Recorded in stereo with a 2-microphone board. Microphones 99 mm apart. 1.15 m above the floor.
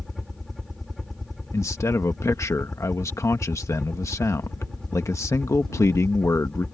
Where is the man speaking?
30° left (ahead or behind).